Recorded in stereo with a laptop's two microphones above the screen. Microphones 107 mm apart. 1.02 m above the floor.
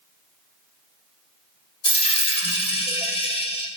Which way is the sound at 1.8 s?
60° left (ahead or behind).